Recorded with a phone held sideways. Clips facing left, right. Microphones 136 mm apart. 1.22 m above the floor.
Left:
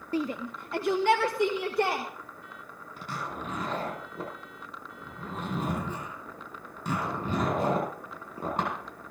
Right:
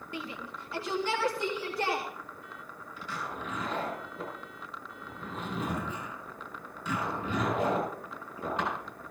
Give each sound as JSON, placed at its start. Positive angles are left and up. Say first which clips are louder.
{"t": 0.1, "sound": "a shout", "louder": "left 10 dB", "side_deg": 35, "distance_m": 0.5}
{"t": 3.0, "sound": "a zipper", "louder": "left 2 dB", "side_deg": 50, "distance_m": 9.0}